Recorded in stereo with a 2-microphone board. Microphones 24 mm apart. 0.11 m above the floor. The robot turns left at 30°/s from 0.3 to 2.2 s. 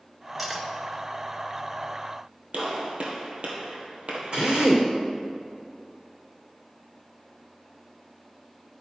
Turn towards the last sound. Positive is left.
turn(degrees=-45)  # may be behind; listen again after turning